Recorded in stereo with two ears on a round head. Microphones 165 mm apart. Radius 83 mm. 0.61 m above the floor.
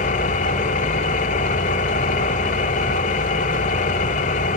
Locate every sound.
0.0 s an engine running: 40° left (ahead or behind), 1.5 m